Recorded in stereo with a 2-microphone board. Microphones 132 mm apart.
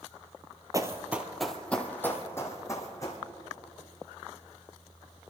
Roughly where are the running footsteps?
Right.